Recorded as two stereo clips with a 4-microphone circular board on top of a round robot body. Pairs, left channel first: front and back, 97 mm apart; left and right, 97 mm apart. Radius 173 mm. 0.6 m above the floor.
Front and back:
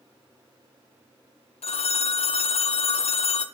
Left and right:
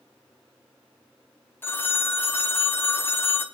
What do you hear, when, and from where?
1.6 s a phone ringing: 20° left, 0.7 m